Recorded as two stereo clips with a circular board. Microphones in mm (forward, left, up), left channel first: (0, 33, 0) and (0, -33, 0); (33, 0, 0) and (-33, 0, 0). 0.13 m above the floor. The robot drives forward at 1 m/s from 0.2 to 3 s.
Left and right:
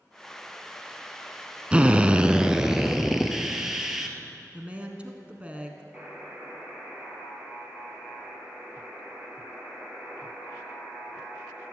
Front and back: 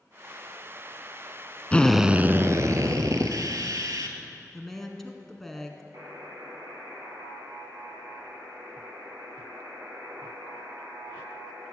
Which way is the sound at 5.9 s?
160° right.